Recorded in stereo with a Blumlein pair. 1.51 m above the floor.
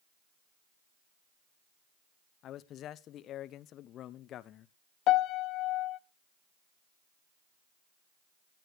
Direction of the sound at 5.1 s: 35° left.